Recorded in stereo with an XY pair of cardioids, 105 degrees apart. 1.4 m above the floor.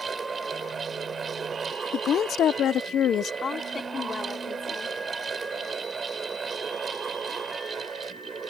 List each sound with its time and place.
0.0 s a fan: 35° right
1.9 s a woman speaking: 60° left
3.4 s a woman speaking: 45° left